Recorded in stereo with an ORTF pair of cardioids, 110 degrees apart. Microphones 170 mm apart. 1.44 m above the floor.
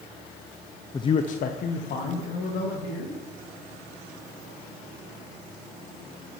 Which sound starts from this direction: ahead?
A man speaking, at 0.9 s.